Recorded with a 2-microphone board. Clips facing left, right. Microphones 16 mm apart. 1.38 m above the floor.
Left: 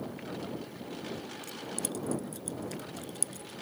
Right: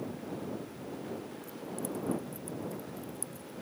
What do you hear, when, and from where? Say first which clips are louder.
0.0 s a lawn mower: even; 75° left (ahead or behind)
1.4 s keys jangling: left 1 dB; 80° left